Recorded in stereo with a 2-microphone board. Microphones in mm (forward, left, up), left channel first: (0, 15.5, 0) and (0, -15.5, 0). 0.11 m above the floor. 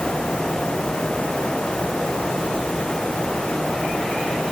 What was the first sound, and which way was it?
Only background noise.